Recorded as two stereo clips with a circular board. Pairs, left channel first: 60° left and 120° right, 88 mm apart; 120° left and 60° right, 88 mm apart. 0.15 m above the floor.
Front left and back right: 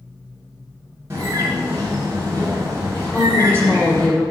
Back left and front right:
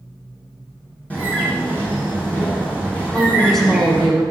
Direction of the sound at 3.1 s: 40° left.